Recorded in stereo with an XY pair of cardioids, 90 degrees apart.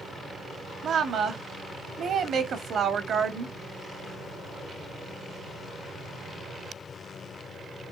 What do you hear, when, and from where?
0.8 s a woman speaking: 65° right, 1.2 m